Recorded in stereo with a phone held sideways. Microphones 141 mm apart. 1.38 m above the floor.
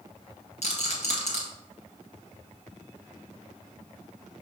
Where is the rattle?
55° left (ahead or behind), 1.8 m.